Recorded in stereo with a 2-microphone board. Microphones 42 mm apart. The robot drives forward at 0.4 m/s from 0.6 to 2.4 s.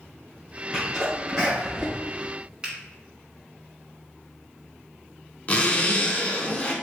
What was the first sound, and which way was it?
A sneeze, 15° right (ahead or behind).